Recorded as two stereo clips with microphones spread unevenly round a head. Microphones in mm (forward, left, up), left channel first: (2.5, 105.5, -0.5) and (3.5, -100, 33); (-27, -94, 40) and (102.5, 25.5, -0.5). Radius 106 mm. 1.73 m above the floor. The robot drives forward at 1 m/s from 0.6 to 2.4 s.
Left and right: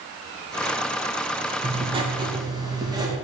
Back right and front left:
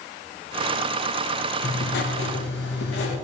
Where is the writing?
140° right, 1.1 m; by 3.1 s 160° right, 1.7 m.